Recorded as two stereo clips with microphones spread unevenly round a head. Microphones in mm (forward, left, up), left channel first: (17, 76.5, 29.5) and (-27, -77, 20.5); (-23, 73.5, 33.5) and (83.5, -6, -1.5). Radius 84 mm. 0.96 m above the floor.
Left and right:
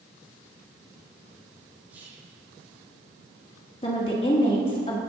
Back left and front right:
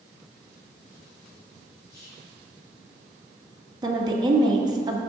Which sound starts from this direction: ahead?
A woman speaking, at 3.8 s.